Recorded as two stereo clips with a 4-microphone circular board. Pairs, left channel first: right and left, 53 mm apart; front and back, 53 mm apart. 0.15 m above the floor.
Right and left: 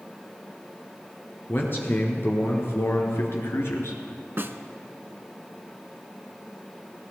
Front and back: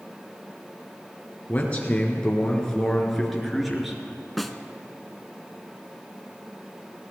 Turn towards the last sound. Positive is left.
turn(degrees=90)